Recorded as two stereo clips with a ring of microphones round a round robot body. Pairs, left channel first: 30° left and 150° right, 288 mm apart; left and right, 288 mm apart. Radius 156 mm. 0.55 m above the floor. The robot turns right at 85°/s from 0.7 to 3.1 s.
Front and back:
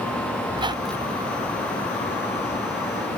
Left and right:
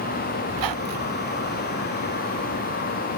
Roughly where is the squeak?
Right.